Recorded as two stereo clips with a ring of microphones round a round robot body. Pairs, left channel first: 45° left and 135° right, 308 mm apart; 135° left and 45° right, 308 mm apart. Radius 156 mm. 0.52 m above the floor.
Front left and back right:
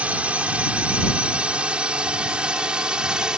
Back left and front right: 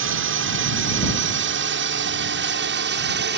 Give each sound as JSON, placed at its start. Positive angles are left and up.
{"t": 0.0, "sound": "a drone", "azimuth_deg": -50}